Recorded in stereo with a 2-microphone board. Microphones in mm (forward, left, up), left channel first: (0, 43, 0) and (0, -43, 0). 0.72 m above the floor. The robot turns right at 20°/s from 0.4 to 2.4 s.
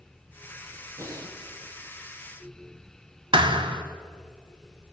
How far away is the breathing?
About 3.5 m.